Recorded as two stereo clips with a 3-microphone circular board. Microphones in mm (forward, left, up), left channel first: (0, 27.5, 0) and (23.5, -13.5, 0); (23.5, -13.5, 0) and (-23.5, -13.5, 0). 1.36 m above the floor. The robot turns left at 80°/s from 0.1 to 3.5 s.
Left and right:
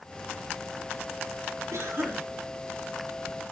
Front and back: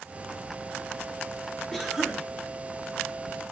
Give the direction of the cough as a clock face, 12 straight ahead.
3 o'clock.